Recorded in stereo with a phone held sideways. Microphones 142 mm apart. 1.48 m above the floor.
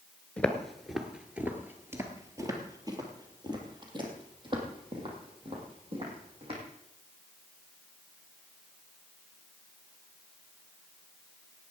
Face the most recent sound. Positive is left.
turn(degrees=-40)  # may be behind; listen again after turning